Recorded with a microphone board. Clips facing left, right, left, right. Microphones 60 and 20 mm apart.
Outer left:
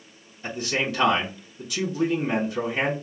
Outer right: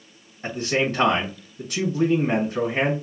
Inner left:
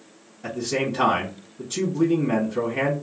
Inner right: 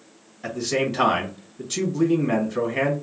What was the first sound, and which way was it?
A man speaking, 45° right (ahead or behind).